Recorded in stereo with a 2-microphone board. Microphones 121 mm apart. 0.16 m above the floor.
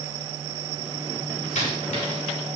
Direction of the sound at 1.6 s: 70° left (ahead or behind).